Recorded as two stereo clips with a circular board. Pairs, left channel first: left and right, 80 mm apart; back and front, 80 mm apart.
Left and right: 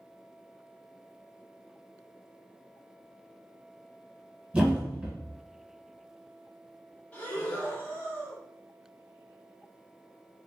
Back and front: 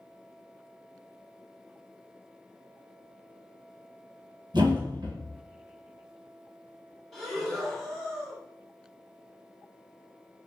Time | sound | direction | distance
4.5 | a thud | 15° right | 1.5 m
7.1 | breathing | 105° left | 1.0 m